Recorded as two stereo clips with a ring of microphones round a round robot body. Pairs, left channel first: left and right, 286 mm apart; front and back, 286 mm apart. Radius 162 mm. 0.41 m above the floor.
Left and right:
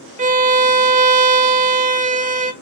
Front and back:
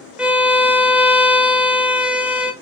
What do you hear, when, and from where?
0.2 s a violin: 100° right, 0.7 m